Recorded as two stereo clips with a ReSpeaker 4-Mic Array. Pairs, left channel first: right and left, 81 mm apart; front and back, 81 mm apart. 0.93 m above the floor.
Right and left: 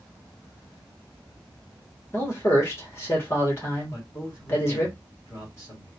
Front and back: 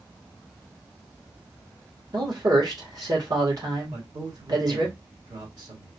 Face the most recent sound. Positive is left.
turn(degrees=-145)